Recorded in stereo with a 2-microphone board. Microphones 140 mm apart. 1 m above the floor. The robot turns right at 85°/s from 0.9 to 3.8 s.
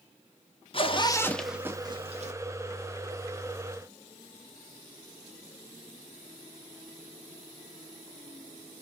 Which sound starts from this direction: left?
A zipper, at 0.7 s.